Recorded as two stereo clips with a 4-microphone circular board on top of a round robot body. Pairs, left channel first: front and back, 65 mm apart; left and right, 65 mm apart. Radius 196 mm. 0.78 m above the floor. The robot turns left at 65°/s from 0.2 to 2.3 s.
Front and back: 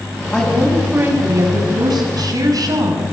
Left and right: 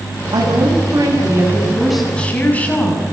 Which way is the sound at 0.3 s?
75° right.